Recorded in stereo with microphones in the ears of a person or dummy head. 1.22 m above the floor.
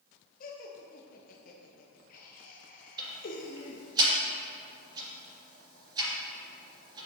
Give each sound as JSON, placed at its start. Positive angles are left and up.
{"t": 0.4, "sound": "laughter", "side_deg": 40, "distance_m": 0.7}
{"t": 3.0, "sound": "ticking", "side_deg": -25, "distance_m": 3.0}